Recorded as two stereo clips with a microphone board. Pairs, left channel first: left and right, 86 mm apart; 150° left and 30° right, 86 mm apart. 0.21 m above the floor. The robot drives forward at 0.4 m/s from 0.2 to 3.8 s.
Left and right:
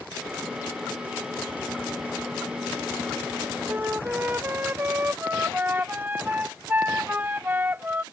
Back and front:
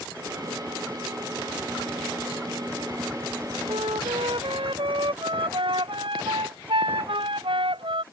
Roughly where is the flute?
Ahead.